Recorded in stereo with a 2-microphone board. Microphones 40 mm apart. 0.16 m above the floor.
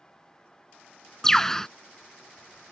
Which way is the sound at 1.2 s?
10° left (ahead or behind).